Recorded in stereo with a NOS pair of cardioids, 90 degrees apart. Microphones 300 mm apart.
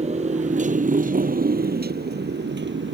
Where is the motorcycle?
20° right; by 3.0 s 40° right.